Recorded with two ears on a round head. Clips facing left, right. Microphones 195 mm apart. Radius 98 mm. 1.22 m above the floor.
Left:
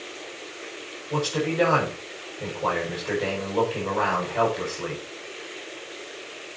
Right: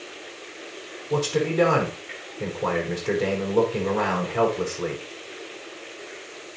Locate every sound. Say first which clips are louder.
1.1 s a man speaking: right 3 dB; 60° right (ahead or behind), 5 m